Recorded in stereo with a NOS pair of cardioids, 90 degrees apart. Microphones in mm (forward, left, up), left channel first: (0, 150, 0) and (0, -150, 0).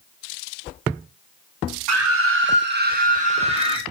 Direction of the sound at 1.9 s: 55° right.